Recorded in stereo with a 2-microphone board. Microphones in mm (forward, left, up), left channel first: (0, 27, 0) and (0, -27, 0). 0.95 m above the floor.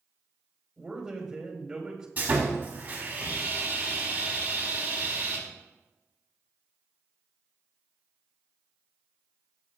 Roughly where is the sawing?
Right.